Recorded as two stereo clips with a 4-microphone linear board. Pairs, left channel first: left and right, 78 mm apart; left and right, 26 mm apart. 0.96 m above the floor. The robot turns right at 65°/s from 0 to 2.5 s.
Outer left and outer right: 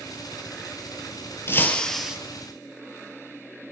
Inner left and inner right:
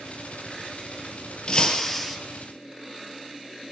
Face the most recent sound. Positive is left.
turn(degrees=-150)